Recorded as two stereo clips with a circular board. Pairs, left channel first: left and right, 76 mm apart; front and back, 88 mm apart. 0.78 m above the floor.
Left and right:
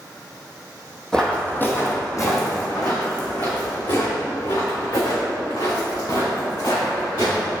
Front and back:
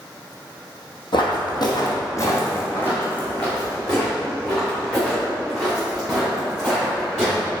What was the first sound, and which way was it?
Footsteps, 10° left.